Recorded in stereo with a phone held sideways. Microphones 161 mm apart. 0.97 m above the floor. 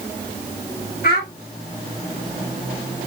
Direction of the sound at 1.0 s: 75° left (ahead or behind).